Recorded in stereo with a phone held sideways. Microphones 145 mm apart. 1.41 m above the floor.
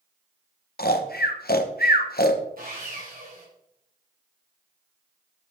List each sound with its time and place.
0.8 s snoring: 90° left, 1.1 m
2.6 s sawing: 70° right (ahead or behind), 7 m